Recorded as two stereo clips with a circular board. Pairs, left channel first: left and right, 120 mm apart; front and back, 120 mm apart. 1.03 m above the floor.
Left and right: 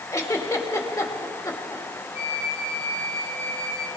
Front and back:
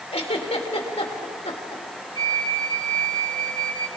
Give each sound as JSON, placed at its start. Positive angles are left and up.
{"t": 0.1, "sound": "a giggle", "azimuth_deg": 25, "distance_m": 2.0}
{"t": 2.1, "sound": "a flute", "azimuth_deg": 125, "distance_m": 1.5}